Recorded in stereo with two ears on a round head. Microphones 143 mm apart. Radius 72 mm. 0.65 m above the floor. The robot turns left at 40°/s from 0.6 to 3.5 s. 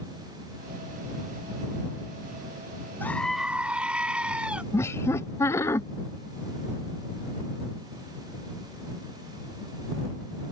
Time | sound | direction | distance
3.0 | a scream | 15° left (ahead or behind) | ?
4.7 | laughter | 20° left (ahead or behind) | ?